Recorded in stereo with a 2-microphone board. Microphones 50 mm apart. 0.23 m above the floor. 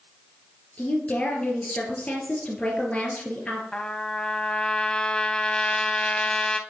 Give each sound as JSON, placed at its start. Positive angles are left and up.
{"t": 0.8, "sound": "a woman speaking", "side_deg": 20, "distance_m": 3.5}
{"t": 3.7, "sound": "a trumpet", "side_deg": 15, "distance_m": 0.6}